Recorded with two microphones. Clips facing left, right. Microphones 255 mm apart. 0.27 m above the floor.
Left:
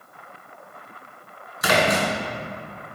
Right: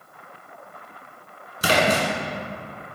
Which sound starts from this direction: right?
A splash, at 1.6 s.